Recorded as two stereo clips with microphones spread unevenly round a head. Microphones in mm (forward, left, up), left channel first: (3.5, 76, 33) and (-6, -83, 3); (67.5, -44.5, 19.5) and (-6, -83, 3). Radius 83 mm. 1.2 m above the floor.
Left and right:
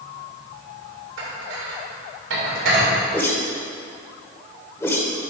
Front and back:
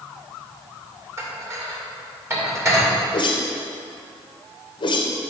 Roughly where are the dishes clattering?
Right.